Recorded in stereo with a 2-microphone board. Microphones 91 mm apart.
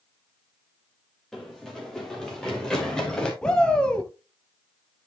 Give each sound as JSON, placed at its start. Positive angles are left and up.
{"t": 1.3, "sound": "running footsteps", "side_deg": 5, "distance_m": 4.0}
{"t": 3.4, "sound": "a shout", "side_deg": 10, "distance_m": 1.3}